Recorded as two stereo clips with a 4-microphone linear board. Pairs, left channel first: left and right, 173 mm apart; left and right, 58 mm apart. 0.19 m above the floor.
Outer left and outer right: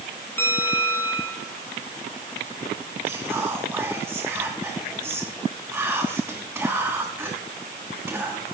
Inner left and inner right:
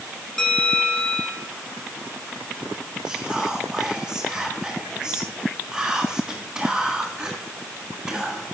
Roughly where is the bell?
Centre.